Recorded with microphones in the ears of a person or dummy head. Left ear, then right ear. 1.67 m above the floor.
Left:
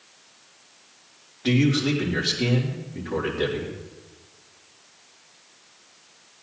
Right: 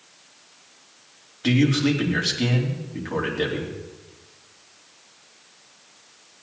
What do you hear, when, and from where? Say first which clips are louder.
1.4 s a man speaking: right 1 dB; 85° right, 4 m